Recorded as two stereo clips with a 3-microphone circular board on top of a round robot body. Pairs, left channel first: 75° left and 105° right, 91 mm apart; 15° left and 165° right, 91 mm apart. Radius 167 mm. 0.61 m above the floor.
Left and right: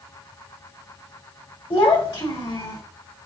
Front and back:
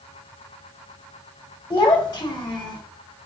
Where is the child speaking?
55° left, 3 m; by 2.8 s 50° left, 4 m.